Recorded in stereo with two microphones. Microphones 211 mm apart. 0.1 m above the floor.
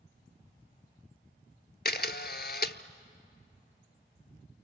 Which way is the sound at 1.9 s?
50° left (ahead or behind).